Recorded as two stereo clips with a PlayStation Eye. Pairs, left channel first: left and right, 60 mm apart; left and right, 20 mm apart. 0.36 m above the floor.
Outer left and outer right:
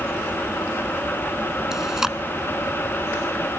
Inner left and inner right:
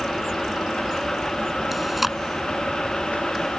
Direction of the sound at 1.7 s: 10° right (ahead or behind).